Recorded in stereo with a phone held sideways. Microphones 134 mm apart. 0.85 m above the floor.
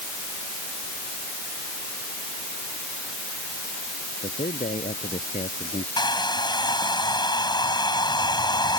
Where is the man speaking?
75° left (ahead or behind).